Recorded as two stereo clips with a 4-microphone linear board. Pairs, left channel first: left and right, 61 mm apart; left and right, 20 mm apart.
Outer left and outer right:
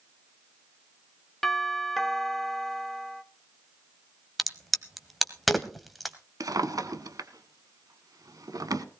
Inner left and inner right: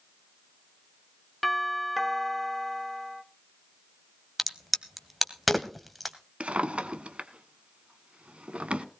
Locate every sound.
1.4 s a doorbell: 5° left (ahead or behind), 1.2 m
4.4 s a crack: centre (ahead or behind), 1.5 m
6.4 s a drawer: 80° right, 1.1 m